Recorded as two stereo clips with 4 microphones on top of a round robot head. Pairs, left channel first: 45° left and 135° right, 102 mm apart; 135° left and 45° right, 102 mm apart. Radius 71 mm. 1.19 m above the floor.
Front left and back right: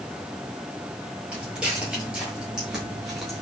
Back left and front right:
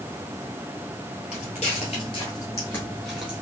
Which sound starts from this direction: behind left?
Footsteps, at 1.3 s.